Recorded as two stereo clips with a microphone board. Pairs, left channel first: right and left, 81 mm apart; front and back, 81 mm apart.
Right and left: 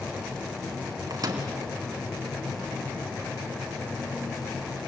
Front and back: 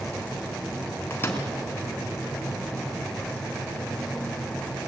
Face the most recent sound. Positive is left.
turn(degrees=60)